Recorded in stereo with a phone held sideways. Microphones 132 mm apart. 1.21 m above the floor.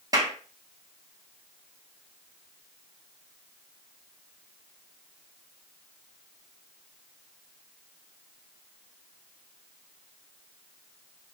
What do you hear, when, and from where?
0.1 s a clap: 25° right (ahead or behind), 1.9 m